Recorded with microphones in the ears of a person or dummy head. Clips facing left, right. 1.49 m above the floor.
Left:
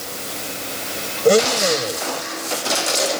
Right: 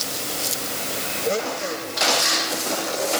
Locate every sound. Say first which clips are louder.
1.2 s a blender: left 10 dB; 70° left (ahead or behind)